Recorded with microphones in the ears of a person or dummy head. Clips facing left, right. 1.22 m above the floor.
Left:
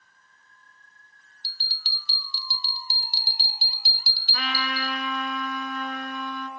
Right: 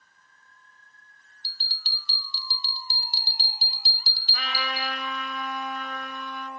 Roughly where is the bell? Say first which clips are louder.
Even; left.